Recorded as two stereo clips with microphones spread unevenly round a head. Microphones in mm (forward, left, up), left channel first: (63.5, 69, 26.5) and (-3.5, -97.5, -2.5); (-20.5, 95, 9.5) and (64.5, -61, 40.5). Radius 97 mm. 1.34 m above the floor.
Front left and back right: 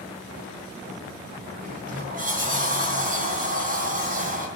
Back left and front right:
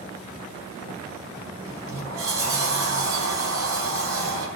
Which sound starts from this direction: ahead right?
A sliding door, at 1.6 s.